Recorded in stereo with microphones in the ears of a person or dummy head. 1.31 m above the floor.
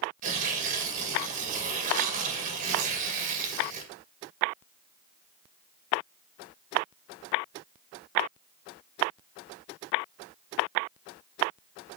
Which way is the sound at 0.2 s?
40° right (ahead or behind).